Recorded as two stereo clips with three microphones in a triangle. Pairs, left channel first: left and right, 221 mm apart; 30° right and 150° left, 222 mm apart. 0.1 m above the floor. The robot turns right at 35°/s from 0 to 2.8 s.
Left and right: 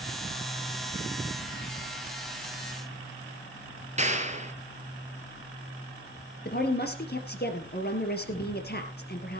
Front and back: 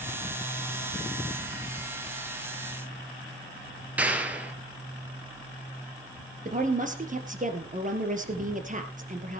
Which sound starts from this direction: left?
A woman speaking, at 6.5 s.